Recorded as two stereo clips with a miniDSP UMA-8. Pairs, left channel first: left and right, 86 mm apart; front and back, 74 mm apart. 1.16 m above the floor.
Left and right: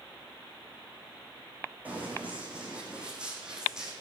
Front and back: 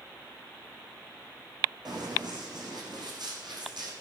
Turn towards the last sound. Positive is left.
turn(degrees=-175)